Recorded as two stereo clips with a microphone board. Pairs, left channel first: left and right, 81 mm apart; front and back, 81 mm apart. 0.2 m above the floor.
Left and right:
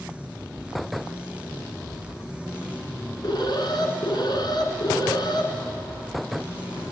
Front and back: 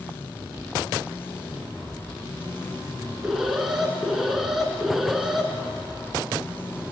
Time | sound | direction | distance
3.2 | an alarm | 95° left | 3 m